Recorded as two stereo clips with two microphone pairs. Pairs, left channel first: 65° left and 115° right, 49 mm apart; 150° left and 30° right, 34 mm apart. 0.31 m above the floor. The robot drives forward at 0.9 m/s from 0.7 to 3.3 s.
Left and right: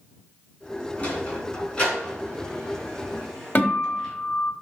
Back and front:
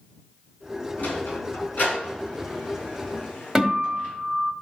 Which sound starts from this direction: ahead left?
A guitar, at 3.5 s.